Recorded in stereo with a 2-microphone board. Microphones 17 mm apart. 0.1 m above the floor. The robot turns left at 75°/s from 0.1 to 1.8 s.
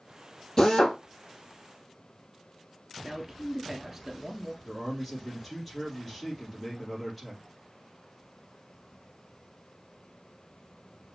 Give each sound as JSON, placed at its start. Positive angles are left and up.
{"t": 0.6, "sound": "a drill", "azimuth_deg": 125, "distance_m": 2.5}
{"t": 3.0, "sound": "a man speaking", "side_deg": -5, "distance_m": 1.4}
{"t": 4.6, "sound": "a man speaking", "side_deg": 15, "distance_m": 3.0}